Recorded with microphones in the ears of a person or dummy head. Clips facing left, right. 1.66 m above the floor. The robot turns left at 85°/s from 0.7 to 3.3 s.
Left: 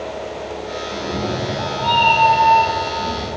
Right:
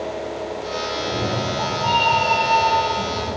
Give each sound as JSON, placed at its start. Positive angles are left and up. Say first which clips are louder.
{"t": 0.9, "sound": "a cat meowing", "louder": "left 2 dB", "azimuth_deg": 85, "distance_m": 1.2}